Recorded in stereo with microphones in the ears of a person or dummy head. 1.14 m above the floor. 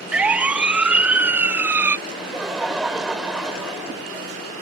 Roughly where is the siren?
Centre.